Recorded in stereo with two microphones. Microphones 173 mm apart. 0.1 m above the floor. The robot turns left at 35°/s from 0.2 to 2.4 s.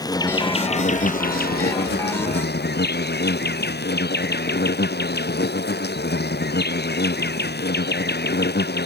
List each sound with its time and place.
0.0 s an insect: 160° left; by 8.9 s 80° left